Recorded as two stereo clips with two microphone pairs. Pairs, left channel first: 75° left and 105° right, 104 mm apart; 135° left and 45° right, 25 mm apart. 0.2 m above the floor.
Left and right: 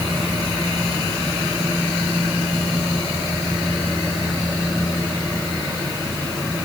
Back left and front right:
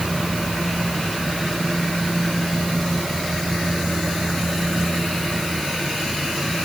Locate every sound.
Only background noise.